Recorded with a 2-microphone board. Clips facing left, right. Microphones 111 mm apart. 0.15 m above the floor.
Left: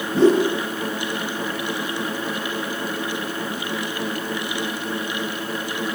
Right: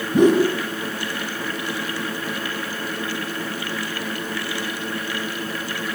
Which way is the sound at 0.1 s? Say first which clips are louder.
Right 1 dB; 15° right (ahead or behind).